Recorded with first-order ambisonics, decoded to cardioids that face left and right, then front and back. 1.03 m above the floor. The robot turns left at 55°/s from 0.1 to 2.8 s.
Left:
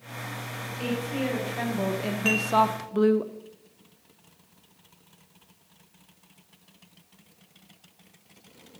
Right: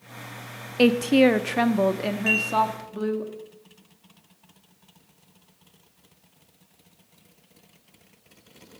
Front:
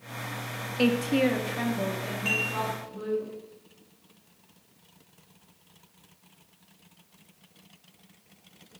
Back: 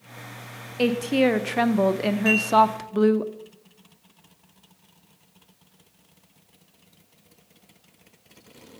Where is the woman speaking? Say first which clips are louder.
Right 13 dB, back 3 dB; 90° right, 0.6 m; by 3.2 s 160° left, 0.6 m.